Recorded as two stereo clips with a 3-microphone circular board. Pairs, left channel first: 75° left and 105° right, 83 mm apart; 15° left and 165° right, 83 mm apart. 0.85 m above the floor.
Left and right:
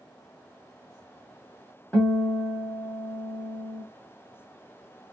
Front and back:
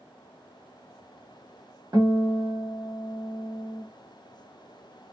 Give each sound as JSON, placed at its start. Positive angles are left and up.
{"t": 1.9, "sound": "a guitar", "azimuth_deg": 150, "distance_m": 1.5}